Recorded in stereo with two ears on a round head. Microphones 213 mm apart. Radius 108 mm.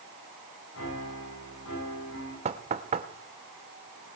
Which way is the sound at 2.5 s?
25° right (ahead or behind).